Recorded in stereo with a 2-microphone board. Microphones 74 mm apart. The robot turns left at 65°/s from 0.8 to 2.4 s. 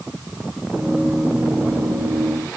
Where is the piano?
No piano in this recording.